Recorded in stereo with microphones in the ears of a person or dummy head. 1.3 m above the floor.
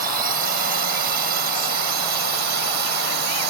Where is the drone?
55° right (ahead or behind); by 3.5 s 65° right (ahead or behind).